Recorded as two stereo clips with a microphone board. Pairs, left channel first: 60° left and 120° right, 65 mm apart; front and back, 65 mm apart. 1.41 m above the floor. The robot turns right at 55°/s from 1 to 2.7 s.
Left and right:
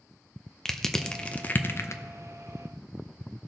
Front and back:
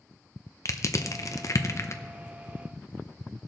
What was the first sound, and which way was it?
Crushing, 20° right.